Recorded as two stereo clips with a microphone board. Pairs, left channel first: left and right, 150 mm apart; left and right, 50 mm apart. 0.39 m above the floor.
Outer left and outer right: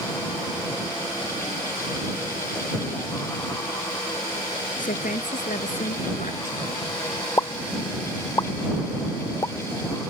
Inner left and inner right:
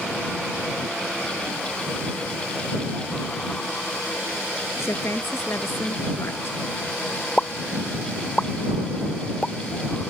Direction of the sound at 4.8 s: 60° left (ahead or behind).